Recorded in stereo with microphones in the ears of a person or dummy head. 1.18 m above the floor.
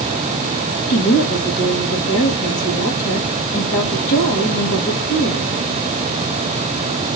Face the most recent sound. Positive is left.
turn(degrees=55)  # may be behind; listen again after turning